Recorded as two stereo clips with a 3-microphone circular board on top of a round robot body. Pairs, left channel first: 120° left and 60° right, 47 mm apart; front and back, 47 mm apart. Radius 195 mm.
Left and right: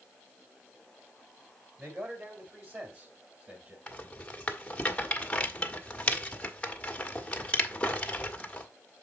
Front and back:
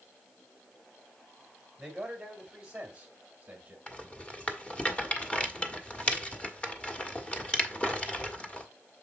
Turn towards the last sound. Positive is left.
turn(degrees=60)